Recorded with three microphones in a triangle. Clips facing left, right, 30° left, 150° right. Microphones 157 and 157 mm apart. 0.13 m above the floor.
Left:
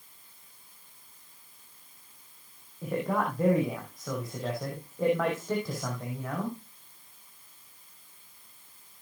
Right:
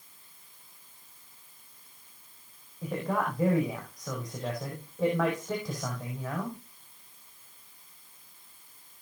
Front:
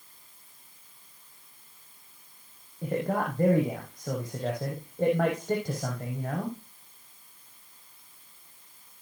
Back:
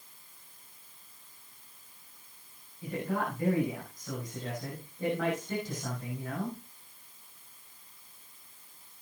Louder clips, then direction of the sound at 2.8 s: Left 1 dB, front 4 dB; 5° left.